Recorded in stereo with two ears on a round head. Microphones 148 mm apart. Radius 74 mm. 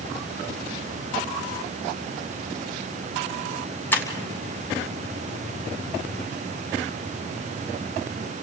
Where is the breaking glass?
15° left (ahead or behind), 3 m.